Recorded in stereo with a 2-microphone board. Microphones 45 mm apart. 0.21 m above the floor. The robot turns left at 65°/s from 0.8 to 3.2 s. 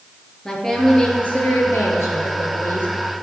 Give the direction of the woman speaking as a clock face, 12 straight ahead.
6 o'clock.